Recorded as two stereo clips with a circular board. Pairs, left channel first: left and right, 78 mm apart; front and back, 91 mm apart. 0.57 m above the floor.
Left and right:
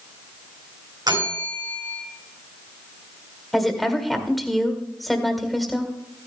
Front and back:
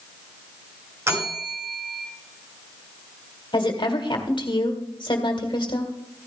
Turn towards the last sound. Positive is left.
turn(degrees=0)